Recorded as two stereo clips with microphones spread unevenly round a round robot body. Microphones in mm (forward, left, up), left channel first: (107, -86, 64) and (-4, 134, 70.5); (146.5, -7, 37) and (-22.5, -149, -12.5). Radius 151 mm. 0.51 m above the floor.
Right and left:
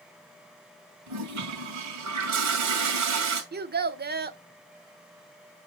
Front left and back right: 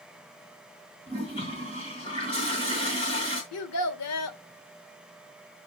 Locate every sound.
1.1 s a toilet flushing: 115° left, 2 m
3.5 s a child speaking: 70° left, 1.1 m